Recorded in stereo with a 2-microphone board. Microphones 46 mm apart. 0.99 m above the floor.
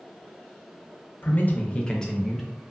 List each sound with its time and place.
1.2 s a man speaking: 45° left (ahead or behind), 0.5 m; by 2.5 s 5° left (ahead or behind), 0.8 m